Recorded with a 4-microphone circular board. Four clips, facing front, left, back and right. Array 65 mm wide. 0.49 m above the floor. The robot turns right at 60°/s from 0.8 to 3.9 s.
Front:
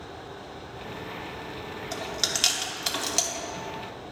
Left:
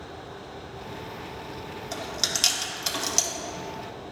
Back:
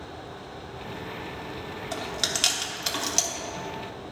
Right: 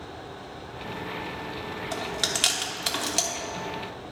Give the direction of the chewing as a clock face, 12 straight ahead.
5 o'clock.